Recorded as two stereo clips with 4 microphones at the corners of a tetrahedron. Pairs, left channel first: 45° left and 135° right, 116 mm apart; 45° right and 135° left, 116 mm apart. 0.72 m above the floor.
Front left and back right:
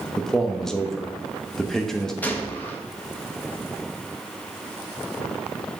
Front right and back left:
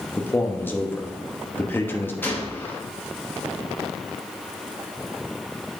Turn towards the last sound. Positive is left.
turn(degrees=-5)